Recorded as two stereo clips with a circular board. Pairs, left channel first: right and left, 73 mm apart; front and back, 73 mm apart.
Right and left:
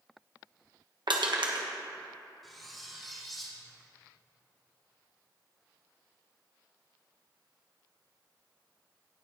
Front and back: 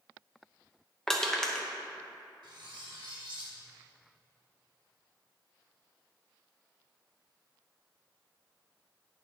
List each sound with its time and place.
1.1 s crushing: 85° left, 1.1 m
2.4 s cutlery clinking: straight behind, 1.6 m